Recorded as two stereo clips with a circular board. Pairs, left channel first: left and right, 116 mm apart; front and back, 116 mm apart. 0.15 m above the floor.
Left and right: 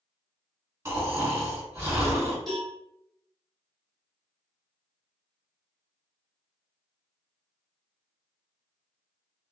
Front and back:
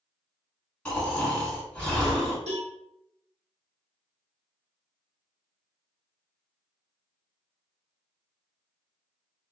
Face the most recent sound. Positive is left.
turn(degrees=175)